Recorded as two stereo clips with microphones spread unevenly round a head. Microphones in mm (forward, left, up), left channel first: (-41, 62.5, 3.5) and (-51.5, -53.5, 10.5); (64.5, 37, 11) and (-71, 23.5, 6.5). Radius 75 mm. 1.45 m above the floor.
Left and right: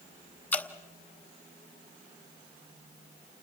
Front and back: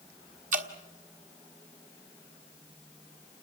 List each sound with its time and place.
0.5 s dripping: 160° left, 1.5 m